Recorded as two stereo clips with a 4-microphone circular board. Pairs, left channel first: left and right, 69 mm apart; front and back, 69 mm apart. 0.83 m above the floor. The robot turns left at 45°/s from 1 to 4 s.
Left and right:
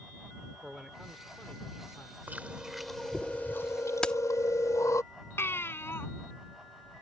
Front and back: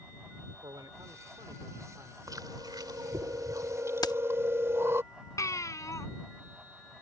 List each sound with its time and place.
0.6 s a man speaking: 175° right; by 2.2 s 130° left
2.3 s chewing: 155° right; by 5.0 s 130° left
4.0 s keys jangling: 15° left
5.4 s a baby crying: 35° left